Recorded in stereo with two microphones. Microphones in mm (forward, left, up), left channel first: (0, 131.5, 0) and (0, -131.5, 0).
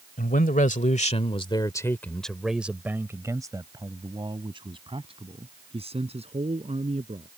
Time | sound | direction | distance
0.2 | a man speaking | 35° left (ahead or behind) | ?